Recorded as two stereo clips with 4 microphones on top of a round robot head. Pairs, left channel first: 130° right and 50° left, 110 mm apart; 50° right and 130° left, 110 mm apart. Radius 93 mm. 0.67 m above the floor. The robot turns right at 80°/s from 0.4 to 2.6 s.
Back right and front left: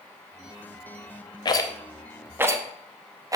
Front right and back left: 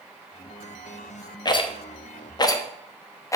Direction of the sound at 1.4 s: 90° right.